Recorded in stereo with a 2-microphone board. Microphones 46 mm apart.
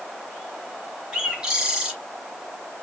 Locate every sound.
1.1 s a bird: 20° right (ahead or behind), 2.5 m